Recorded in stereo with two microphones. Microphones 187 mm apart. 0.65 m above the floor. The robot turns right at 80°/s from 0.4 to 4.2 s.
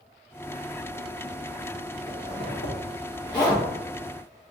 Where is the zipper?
50° left (ahead or behind), 1.0 m; by 4.5 s 40° right (ahead or behind), 1.0 m.